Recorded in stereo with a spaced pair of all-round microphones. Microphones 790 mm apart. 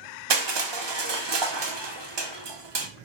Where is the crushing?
40° right (ahead or behind), 0.5 m.